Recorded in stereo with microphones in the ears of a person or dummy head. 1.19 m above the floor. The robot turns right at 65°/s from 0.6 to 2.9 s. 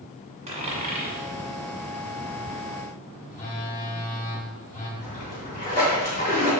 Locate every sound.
0.5 s a dropped coin: 30° right (ahead or behind), 1.4 m; by 1.2 s 45° right (ahead or behind), 1.4 m
3.3 s a phone buzzing: 40° left (ahead or behind), 1.5 m
5.0 s a splash: 50° left (ahead or behind), 3 m